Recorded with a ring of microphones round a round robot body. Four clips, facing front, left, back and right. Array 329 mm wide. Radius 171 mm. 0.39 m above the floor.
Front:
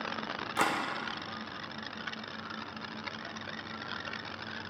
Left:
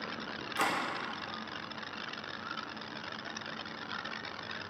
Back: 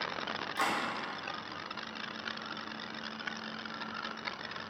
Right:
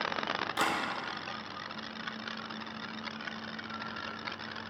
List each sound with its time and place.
0.6 s a camera shutter: 15° right, 1.0 m